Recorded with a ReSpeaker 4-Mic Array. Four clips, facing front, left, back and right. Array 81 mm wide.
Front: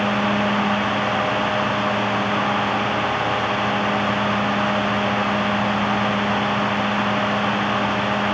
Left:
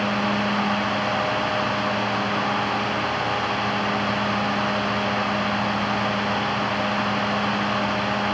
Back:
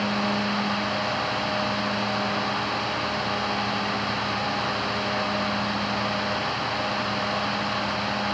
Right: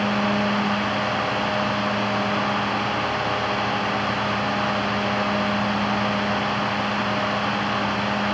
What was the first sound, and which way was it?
Only background noise.